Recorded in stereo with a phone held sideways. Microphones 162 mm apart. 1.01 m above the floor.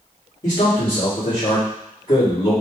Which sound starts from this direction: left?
A man speaking, at 0.4 s.